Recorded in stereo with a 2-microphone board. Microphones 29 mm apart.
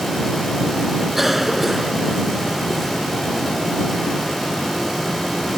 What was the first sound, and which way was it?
A cough, 5° right (ahead or behind).